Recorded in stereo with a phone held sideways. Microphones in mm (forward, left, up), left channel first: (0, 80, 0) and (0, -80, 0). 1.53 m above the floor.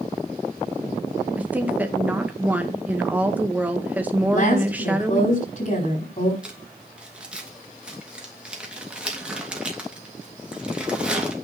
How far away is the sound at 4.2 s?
About 5 m.